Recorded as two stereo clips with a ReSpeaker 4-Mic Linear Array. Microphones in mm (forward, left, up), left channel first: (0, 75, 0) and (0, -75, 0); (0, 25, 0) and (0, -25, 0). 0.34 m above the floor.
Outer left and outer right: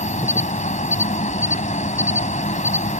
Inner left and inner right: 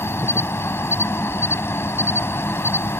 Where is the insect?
55° left (ahead or behind).